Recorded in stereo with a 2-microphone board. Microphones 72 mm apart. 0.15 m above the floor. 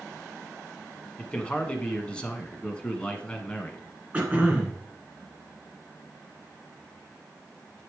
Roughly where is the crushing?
I don't hear crushing.